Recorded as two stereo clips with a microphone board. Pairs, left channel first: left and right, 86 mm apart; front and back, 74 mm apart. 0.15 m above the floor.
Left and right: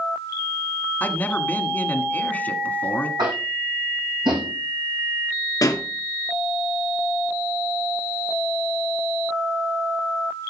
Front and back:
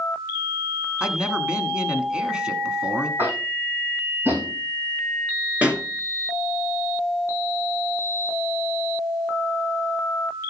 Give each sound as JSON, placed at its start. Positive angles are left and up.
{"t": 1.0, "sound": "a man speaking", "azimuth_deg": 125, "distance_m": 1.4}
{"t": 3.2, "sound": "tapping", "azimuth_deg": -120, "distance_m": 3.0}
{"t": 5.6, "sound": "a pop", "azimuth_deg": 115, "distance_m": 1.8}